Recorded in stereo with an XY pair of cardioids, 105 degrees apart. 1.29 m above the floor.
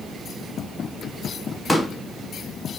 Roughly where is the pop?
Ahead.